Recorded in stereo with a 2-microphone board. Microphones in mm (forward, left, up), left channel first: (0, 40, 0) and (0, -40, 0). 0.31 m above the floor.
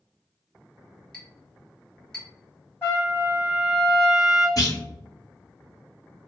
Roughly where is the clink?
Centre.